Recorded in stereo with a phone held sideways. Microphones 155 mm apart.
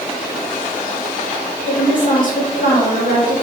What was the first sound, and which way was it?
A woman speaking, 55° left (ahead or behind).